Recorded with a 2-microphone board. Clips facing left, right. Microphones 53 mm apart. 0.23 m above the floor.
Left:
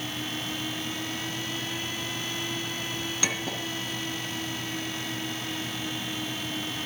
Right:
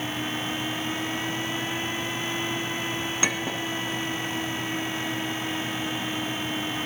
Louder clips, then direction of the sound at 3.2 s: Right 3 dB; 25° right (ahead or behind).